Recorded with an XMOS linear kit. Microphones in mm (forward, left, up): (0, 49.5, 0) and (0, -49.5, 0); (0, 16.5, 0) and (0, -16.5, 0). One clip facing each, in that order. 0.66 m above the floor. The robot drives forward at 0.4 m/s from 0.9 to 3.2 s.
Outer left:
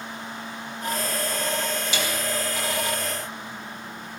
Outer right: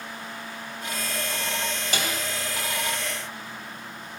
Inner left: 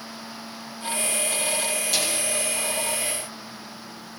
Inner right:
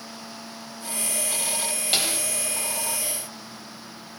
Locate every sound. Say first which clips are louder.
1.9 s a snare drum: outer right 2 dB, inner right 3 dB; 50° right (ahead or behind), 3 m; by 2.2 s 45° right (ahead or behind), 3 m